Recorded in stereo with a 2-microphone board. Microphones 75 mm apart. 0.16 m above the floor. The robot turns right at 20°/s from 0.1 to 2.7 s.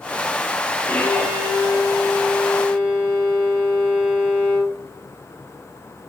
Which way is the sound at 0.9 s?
160° left.